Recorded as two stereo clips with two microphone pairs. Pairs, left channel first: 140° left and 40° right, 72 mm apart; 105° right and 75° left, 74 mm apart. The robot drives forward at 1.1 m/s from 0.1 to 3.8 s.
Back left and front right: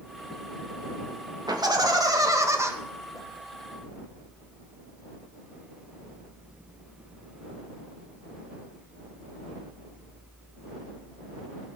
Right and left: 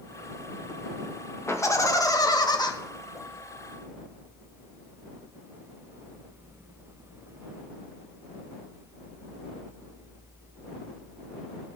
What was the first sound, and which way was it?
Laughter, 55° right.